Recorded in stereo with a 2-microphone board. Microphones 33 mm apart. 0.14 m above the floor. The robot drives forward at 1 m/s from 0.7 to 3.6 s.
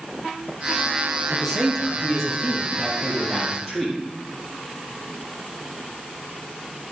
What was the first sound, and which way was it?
A man speaking, 15° left (ahead or behind).